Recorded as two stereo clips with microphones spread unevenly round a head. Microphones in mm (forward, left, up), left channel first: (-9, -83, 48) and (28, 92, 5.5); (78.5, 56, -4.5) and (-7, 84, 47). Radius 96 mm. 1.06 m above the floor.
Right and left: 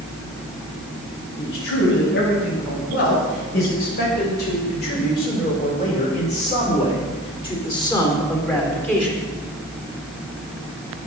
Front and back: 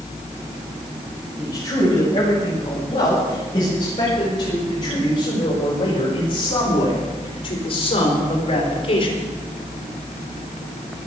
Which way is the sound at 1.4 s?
80° right.